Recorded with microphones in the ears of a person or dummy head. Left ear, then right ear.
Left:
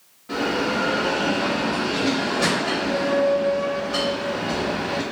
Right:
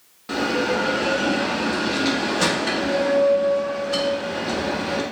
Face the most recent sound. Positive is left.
turn(degrees=-85)